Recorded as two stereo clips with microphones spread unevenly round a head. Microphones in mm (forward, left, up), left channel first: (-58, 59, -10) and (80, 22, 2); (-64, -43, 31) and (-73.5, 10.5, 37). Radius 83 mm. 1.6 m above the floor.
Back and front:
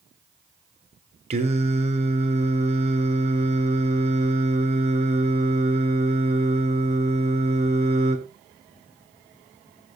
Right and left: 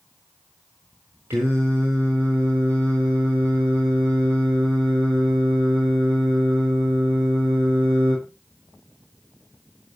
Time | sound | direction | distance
1.3 | singing | 25° left | 4 m